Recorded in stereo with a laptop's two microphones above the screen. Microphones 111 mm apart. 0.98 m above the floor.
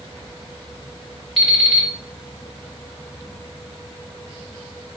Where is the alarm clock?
5° left (ahead or behind), 1.3 m.